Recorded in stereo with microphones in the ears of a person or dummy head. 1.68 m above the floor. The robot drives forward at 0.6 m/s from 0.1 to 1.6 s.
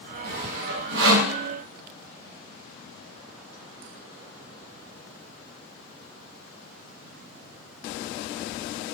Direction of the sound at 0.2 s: 75° right (ahead or behind).